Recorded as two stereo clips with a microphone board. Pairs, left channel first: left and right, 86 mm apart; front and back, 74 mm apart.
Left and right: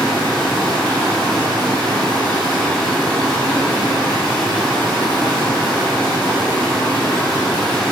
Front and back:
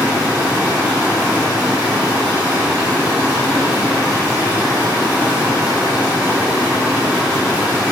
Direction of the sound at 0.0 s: 175° left.